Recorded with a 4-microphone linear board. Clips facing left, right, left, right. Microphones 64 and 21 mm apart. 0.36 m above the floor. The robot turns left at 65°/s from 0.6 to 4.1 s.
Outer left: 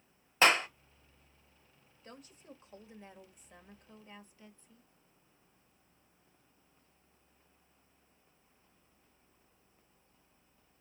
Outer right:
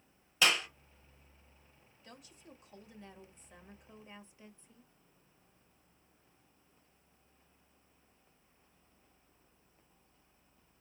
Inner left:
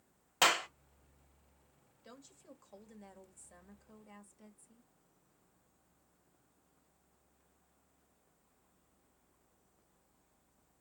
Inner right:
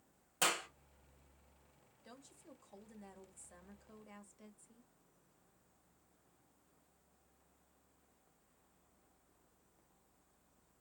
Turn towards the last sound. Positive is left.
turn(degrees=-35)